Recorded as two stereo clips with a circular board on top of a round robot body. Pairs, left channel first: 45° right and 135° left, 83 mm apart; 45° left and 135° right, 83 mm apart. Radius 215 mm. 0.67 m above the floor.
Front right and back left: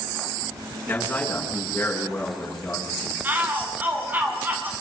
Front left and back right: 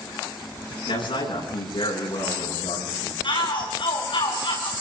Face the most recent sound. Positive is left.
turn(degrees=65)